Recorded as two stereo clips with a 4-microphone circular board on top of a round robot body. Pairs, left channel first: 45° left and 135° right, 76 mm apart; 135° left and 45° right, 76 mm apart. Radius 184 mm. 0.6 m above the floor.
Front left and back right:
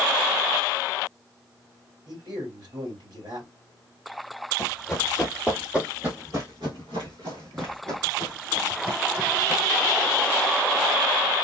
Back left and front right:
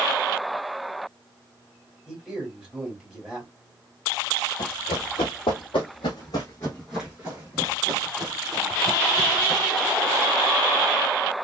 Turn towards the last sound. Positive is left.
turn(degrees=-75)